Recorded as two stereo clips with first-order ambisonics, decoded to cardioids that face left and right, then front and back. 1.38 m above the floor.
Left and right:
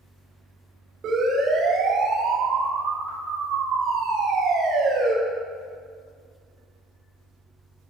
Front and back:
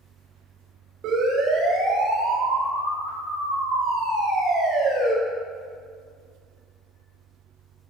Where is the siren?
145° right, 7 m; by 5.1 s 125° right, 9.5 m.